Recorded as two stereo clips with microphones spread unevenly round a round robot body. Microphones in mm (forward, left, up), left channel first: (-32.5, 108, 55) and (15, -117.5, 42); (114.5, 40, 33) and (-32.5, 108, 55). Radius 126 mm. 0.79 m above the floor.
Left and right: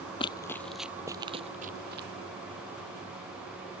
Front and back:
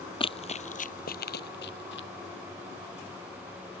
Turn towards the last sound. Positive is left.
turn(degrees=-30)